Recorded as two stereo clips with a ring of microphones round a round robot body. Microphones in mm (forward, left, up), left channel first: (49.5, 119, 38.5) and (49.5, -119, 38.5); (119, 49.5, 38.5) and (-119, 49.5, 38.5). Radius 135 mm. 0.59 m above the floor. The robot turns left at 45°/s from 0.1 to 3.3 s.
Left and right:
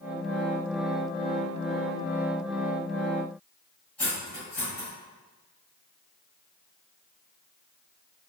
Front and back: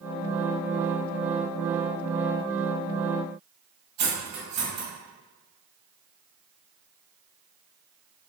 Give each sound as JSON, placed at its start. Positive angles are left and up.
{"t": 4.0, "sound": "cutlery clinking", "azimuth_deg": 175, "distance_m": 1.3}